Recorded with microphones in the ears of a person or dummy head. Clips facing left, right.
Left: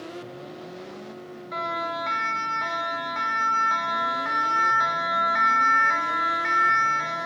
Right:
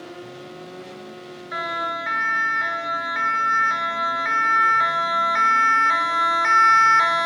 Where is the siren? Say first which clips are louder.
Even; 15° right (ahead or behind), 3.5 m; by 7.3 s 70° right (ahead or behind), 1.3 m.